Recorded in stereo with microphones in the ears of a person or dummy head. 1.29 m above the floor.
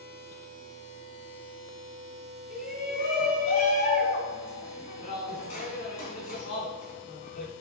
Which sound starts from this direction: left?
A shout, at 2.5 s.